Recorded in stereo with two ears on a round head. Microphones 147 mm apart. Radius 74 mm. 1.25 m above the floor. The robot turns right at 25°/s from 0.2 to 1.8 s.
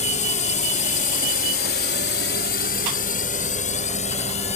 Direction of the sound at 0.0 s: 50° left (ahead or behind).